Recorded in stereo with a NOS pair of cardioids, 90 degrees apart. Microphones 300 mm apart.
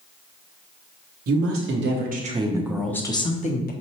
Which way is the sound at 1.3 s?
55° right.